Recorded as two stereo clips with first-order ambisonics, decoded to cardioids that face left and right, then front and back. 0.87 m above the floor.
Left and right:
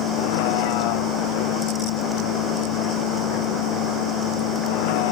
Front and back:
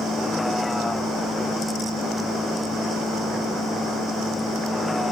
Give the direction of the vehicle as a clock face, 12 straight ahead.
9 o'clock.